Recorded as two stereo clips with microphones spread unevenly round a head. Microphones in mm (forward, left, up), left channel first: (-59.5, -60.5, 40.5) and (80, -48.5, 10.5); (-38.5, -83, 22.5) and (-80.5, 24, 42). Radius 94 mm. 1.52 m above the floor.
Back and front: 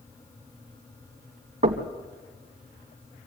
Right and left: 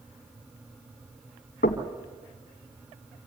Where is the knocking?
40° right, 1.6 m.